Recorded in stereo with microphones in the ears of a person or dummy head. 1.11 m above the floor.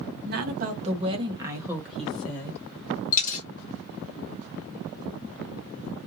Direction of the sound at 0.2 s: 50° right (ahead or behind).